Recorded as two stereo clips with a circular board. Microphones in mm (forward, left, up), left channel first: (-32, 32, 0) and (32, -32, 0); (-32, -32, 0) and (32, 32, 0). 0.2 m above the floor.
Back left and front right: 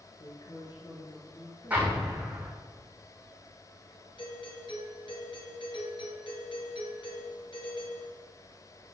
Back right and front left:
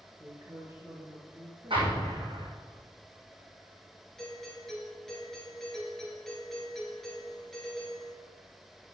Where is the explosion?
25° left, 5 m.